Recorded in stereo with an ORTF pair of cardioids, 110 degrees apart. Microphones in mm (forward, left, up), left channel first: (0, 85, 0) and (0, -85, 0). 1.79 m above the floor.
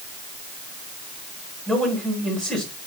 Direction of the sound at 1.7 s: Straight ahead.